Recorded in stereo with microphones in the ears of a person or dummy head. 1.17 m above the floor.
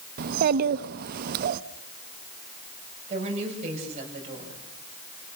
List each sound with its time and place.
0.2 s a child speaking: 55° right (ahead or behind), 0.7 m
3.1 s a woman speaking: 40° right (ahead or behind), 6.5 m